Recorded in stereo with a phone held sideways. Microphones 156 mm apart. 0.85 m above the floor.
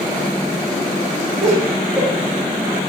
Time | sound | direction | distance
1.4 | laughter | 5° right (ahead or behind) | 1.0 m